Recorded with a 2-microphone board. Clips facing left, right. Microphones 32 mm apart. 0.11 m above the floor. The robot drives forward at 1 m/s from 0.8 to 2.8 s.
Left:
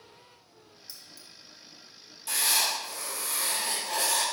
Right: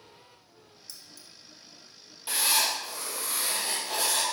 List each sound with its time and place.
0.9 s keys jangling: 15° left (ahead or behind), 1.4 m; by 1.3 s 20° left (ahead or behind), 1.1 m
2.3 s writing: 25° right (ahead or behind), 2.5 m; by 4.2 s 20° right (ahead or behind), 3 m